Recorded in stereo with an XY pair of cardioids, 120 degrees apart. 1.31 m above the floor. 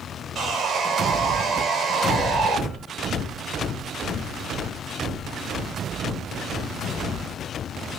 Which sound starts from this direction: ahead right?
Sawing, at 0.3 s.